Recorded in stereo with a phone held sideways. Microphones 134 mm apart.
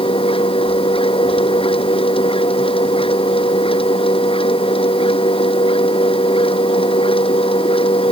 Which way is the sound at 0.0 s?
40° left (ahead or behind).